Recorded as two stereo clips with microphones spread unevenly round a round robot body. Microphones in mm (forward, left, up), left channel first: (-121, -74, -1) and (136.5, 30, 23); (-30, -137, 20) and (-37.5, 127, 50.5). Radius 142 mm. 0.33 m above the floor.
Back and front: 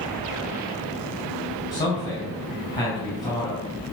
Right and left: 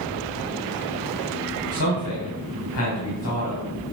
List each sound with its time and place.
1.7 s a man speaking: 85° right, 3 m